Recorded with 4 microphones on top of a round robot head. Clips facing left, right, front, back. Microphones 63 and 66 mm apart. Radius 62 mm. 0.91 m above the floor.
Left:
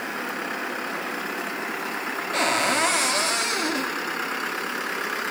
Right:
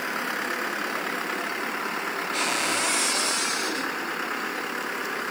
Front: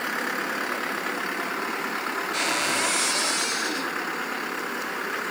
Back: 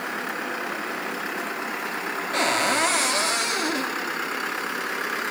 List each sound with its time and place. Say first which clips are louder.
2.3 s a cupboard door: left 6 dB, back 6 dB; 135° left, 2.0 m